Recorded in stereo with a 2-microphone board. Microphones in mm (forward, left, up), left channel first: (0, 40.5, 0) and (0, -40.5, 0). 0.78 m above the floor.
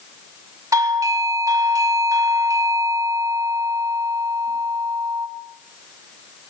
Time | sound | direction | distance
0.7 | a doorbell | 45° right (ahead or behind) | 2 m